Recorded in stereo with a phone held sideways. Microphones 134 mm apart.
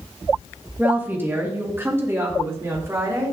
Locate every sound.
0.8 s a woman speaking: 15° right (ahead or behind), 1.6 m; by 3.4 s 25° right (ahead or behind), 3 m